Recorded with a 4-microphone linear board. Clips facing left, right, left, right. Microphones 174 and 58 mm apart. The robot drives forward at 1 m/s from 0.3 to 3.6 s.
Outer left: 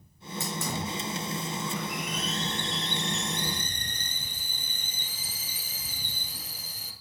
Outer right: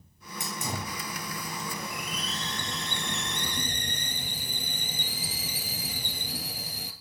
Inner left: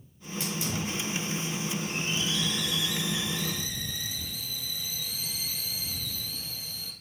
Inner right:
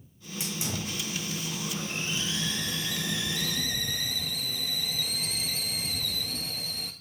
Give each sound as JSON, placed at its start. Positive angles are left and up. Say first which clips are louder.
{"t": 0.4, "sound": "a hiss", "louder": "outer left 2 dB, inner left 2 dB", "side_deg": -15, "distance_m": 3.5}